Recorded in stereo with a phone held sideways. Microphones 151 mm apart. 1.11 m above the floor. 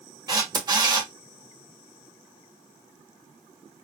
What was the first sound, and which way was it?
A camera shutter, 25° right (ahead or behind).